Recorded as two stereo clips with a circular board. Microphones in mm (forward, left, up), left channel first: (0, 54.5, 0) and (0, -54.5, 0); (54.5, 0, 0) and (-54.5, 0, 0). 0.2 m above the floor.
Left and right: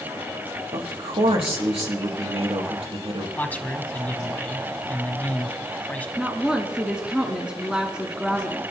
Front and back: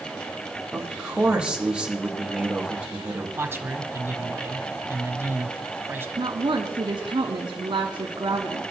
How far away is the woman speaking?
About 1.9 m.